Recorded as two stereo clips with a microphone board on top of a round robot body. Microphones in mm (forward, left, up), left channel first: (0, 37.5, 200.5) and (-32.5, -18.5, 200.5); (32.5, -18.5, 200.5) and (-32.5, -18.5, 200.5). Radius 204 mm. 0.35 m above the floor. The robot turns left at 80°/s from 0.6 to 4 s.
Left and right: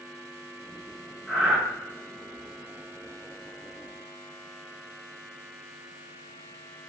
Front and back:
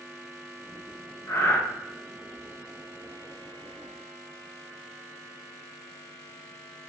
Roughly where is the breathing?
Ahead right.